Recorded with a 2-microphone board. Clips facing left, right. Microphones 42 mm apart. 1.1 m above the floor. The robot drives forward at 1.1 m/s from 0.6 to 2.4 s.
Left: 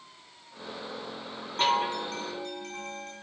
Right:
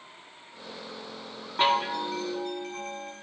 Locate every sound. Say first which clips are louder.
1.6 s a chime: right 2 dB; 20° right (ahead or behind), 1.0 m; by 3.1 s 10° right (ahead or behind), 1.8 m